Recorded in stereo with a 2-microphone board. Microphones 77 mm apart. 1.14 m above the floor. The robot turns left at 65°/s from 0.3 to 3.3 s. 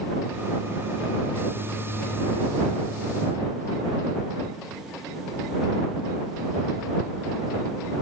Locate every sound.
Only background noise.